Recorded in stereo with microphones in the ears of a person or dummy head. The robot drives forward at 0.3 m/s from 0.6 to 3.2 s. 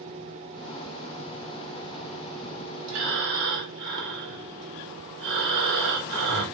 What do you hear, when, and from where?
2.9 s breathing: 60° right (ahead or behind), 1.0 m; by 6.4 s 55° right (ahead or behind), 1.0 m